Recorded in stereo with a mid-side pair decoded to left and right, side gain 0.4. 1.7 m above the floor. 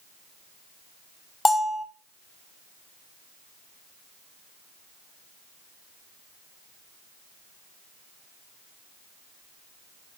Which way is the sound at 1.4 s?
25° left.